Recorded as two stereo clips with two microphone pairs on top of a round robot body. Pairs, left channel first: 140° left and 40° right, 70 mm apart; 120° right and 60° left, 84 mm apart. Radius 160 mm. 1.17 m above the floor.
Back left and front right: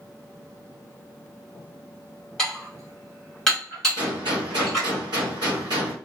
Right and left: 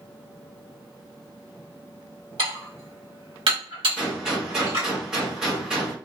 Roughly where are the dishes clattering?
Ahead left.